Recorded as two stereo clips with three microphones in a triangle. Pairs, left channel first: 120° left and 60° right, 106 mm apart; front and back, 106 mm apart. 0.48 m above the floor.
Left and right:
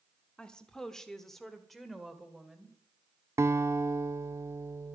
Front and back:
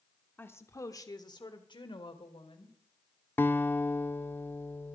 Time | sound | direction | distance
0.4 | a woman speaking | 50° left | 1.1 m
3.4 | a guitar | 45° right | 0.5 m